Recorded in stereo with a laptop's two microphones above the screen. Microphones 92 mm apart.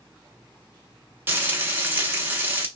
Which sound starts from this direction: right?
Frying, at 1.3 s.